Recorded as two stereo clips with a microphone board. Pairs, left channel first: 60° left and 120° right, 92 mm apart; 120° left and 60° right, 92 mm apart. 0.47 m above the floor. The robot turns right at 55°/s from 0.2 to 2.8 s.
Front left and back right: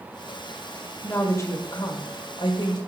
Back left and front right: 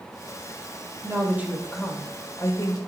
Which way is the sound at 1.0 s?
15° right.